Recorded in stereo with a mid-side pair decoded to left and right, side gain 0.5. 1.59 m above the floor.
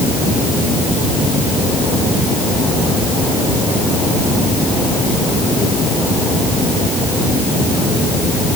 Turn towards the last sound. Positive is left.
No sound to turn to.